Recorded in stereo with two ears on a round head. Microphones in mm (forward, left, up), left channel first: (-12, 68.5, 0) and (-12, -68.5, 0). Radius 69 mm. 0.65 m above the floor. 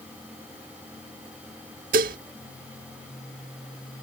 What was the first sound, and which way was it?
Dishes clattering, 55° right (ahead or behind).